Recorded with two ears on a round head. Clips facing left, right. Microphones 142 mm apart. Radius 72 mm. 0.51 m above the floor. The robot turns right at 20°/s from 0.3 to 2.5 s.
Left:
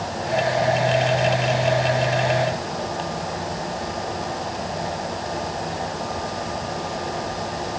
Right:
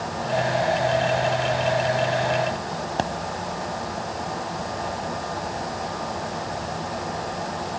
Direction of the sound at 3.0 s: 75° right (ahead or behind).